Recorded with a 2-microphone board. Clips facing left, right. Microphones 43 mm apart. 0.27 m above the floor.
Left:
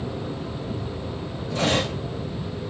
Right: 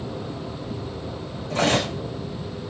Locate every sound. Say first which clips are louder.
1.5 s cutlery clinking: right 2 dB; 50° right (ahead or behind), 9.5 m